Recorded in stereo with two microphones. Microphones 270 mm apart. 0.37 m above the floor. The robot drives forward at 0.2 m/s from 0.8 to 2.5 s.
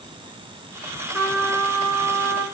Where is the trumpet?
5° right (ahead or behind), 3.5 m.